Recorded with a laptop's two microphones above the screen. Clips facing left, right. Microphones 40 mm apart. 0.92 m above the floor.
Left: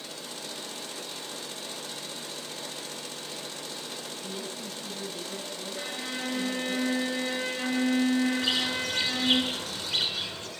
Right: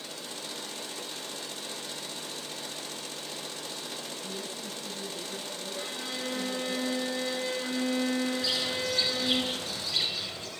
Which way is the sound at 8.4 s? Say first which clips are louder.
Left 2 dB; 60° left (ahead or behind).